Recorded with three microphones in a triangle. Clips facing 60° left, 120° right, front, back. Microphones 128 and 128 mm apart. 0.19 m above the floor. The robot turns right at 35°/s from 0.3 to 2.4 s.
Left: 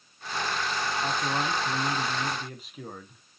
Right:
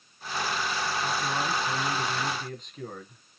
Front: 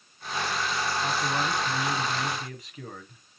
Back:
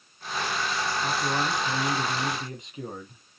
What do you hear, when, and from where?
1.0 s a man speaking: 90° left, 1.4 m; by 3.2 s 135° left, 1.4 m